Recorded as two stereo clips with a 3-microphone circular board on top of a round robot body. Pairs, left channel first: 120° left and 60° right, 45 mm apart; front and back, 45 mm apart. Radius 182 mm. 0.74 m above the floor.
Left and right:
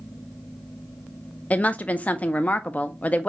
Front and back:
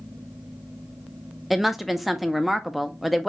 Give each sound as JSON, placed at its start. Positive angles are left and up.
{"t": 1.5, "sound": "a woman speaking", "azimuth_deg": 95, "distance_m": 0.7}